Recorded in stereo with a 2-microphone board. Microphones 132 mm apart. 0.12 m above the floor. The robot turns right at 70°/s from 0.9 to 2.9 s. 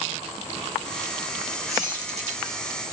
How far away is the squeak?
About 1.6 m.